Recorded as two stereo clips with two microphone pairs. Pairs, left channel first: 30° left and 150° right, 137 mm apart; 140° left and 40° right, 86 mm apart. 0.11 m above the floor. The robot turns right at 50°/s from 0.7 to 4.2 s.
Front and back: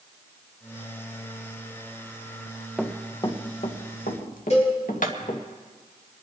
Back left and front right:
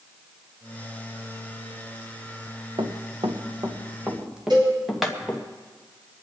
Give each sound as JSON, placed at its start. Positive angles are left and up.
{"t": 2.8, "sound": "running footsteps", "azimuth_deg": -65, "distance_m": 1.5}
{"t": 4.5, "sound": "a cowbell", "azimuth_deg": -10, "distance_m": 7.5}